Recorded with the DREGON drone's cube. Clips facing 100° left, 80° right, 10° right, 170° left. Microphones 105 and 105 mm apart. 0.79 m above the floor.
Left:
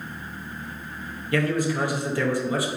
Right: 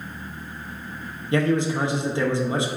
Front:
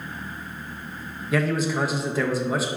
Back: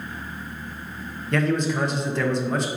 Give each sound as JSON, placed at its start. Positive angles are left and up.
{"t": 1.3, "sound": "a man speaking", "azimuth_deg": -90, "distance_m": 0.6}